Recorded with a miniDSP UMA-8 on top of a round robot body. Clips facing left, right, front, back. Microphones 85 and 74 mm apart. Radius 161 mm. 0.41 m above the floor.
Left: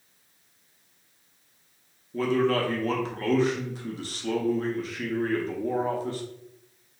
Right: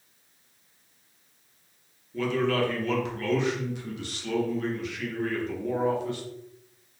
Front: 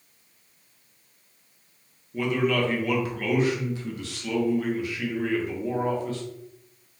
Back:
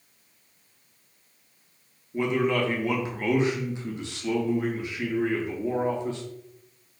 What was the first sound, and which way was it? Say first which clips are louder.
A man speaking: left 2 dB, even; 120° left.